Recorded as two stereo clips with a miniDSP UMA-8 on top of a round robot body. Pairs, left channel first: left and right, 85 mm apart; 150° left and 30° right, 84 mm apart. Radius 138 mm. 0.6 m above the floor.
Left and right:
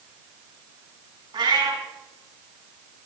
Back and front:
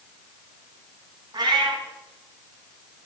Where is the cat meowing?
65° right, 3.5 m.